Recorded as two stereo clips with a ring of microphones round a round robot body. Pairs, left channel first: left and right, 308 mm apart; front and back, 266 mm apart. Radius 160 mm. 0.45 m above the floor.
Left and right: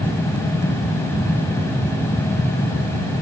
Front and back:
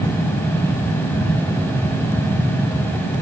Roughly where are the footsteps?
No footsteps in this recording.